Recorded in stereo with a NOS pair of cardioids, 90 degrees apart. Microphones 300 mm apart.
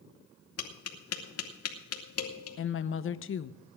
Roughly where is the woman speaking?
Ahead left.